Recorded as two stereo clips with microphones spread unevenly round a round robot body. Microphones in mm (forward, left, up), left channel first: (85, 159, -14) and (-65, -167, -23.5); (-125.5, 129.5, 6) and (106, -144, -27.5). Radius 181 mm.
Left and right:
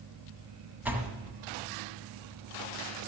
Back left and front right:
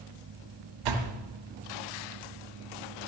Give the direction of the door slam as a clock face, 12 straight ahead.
1 o'clock.